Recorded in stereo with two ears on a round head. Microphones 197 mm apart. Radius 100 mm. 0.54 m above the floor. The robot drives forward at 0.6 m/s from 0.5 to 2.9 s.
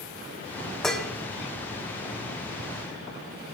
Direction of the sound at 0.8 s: Centre (ahead or behind).